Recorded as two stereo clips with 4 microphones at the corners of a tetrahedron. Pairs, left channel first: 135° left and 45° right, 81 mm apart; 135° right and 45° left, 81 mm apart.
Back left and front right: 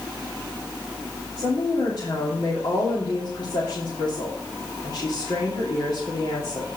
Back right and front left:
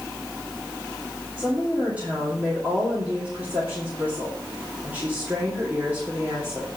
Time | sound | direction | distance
1.4 | a woman speaking | 115° left | 2.5 m